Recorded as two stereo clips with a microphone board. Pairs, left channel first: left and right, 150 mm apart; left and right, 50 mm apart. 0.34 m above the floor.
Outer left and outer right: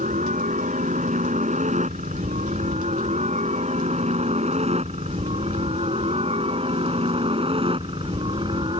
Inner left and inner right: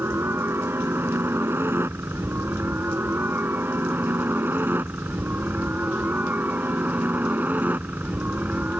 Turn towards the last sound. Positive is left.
turn(degrees=-35)  # may be behind; listen again after turning